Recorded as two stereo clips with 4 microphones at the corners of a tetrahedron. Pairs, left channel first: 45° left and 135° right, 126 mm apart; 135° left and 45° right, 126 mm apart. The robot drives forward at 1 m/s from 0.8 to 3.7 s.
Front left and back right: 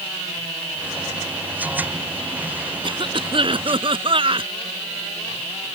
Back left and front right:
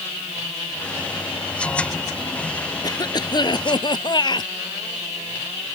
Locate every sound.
2.8 s a cough: 175° right